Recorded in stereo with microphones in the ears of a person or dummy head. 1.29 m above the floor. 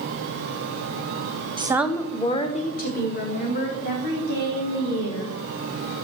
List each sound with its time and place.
1.6 s a woman speaking: 25° right (ahead or behind), 0.7 m; by 5.4 s 60° left (ahead or behind), 3.5 m